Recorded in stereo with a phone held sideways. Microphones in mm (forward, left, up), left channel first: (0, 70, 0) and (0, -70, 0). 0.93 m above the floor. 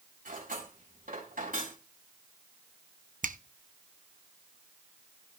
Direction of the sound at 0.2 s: 80° right.